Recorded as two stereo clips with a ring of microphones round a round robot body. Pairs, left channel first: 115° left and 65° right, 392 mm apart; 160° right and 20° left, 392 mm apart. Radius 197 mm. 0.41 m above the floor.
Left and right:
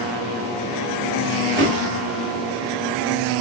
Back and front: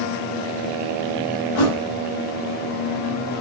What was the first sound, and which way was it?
A thud, 140° right.